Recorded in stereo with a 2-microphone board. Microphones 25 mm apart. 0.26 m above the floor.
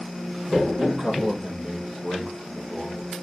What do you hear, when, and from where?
0.8 s a man speaking: 35° right (ahead or behind), 5 m